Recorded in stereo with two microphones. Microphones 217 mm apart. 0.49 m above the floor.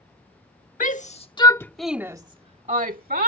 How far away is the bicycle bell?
No bicycle bell in this recording.